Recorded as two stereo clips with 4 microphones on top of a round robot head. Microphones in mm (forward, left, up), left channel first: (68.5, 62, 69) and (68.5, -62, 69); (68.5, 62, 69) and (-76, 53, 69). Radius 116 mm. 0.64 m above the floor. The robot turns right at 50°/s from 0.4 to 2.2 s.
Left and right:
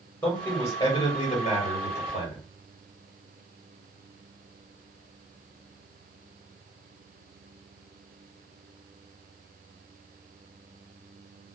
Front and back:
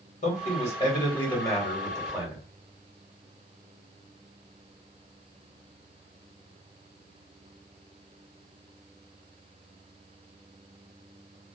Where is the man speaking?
10° left, 1.3 m; by 2.5 s 100° left, 1.3 m.